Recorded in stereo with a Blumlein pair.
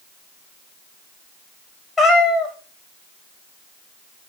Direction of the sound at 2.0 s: 10° left.